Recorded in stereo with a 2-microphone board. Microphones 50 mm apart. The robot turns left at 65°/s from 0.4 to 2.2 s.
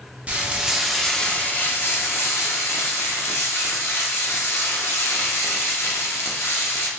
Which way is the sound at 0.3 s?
150° right.